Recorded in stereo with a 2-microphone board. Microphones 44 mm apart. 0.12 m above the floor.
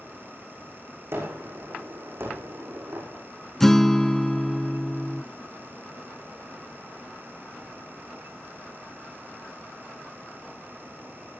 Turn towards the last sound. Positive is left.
turn(degrees=10)  # may be behind; listen again after turning